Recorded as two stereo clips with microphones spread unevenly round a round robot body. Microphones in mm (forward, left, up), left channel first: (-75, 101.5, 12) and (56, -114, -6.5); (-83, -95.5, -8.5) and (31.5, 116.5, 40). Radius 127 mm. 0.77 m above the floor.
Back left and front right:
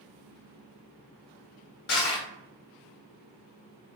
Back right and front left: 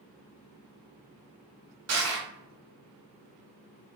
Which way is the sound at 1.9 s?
75° left.